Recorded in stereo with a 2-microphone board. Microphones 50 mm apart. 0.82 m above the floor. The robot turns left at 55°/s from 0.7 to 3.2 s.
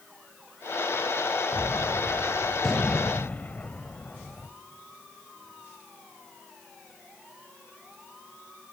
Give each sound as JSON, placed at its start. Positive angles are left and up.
{"t": 1.5, "sound": "a gunshot", "azimuth_deg": -120, "distance_m": 1.3}